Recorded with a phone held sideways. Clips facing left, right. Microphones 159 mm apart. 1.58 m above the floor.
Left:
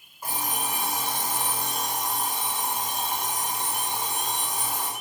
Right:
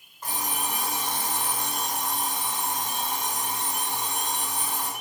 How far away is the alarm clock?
About 4 m.